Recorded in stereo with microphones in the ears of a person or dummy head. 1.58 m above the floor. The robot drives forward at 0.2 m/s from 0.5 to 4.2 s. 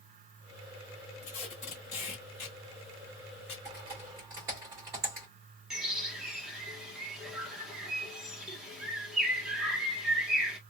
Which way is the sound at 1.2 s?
25° left (ahead or behind).